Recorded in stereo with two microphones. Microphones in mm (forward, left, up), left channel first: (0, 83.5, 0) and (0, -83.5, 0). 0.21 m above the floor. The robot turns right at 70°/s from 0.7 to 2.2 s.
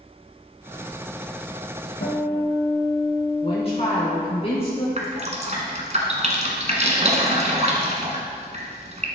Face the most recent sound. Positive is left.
turn(degrees=-45)  # may be behind; listen again after turning